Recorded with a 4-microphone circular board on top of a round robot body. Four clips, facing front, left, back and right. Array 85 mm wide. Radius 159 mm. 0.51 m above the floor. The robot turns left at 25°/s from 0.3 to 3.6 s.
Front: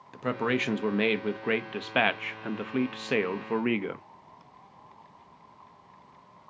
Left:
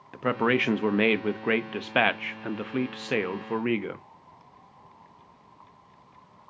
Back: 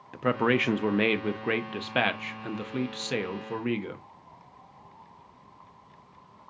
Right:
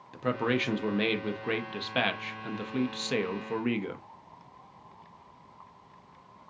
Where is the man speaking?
120° left, 0.7 m; by 4.0 s 35° left, 0.7 m.